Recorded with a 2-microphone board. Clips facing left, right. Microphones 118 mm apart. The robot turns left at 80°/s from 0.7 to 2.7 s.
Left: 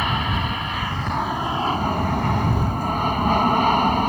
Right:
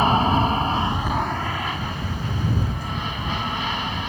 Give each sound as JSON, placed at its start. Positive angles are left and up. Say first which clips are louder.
{"t": 0.0, "sound": "an aircraft", "louder": "right 6 dB", "azimuth_deg": -140}